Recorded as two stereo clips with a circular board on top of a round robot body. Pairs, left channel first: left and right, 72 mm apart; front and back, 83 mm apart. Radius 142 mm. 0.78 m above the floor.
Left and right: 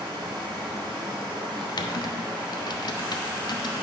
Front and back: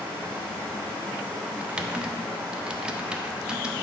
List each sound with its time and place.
0.0 s running water: 115° right, 0.8 m
1.6 s typing on a keyboard: 100° left, 0.8 m